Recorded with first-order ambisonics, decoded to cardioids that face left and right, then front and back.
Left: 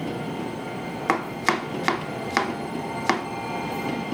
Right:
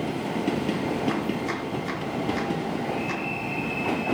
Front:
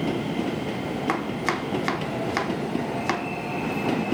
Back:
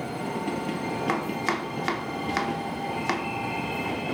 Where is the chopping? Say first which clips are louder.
Left 5 dB, front 2 dB; 85° left, 0.7 m.